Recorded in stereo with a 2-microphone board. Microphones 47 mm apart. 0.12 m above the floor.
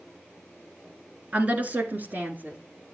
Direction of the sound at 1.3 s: 30° right (ahead or behind).